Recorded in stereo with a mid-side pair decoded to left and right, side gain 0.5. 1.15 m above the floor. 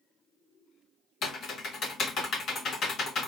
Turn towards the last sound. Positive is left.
turn(degrees=55)